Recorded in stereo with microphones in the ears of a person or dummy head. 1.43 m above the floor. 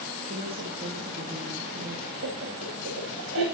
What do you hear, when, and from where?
0.2 s a woman speaking: 55° right (ahead or behind), 4 m
2.2 s laughter: 80° right, 9.5 m